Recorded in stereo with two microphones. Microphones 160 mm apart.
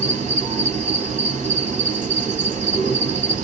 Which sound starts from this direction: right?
An insect, at 0.0 s.